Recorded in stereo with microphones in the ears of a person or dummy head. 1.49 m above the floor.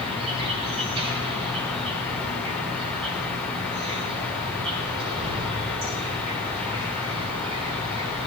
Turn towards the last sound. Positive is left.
turn(degrees=-35)  # may be behind; listen again after turning